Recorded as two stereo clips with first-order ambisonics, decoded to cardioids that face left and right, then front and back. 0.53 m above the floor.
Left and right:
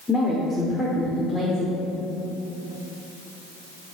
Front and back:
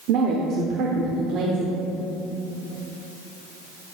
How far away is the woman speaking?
About 1.2 m.